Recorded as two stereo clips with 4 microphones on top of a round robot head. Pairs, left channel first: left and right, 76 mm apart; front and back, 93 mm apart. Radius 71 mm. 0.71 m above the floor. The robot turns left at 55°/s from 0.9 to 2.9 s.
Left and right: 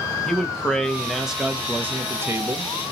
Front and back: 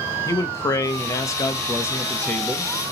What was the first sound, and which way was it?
A man speaking, 10° left.